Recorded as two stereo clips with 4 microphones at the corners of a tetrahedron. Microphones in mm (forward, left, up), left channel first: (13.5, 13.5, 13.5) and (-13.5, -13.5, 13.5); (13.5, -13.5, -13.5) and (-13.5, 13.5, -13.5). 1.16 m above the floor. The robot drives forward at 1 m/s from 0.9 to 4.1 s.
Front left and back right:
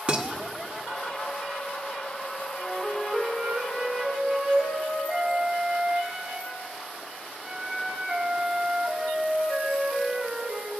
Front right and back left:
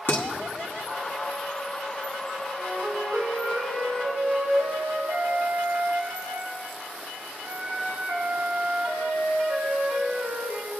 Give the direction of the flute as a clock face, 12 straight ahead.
8 o'clock.